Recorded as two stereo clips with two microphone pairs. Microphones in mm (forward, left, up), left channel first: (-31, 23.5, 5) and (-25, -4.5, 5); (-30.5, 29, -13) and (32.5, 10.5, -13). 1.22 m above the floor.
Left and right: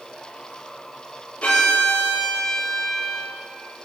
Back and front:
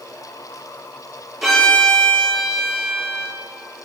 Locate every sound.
1.4 s a violin: 70° left, 4 m